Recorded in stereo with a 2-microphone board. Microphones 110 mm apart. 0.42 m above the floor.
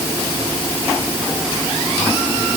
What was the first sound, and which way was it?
Only background noise.